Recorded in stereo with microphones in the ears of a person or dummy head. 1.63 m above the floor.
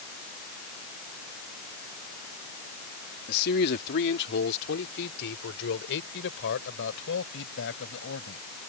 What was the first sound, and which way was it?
A man speaking, 55° left (ahead or behind).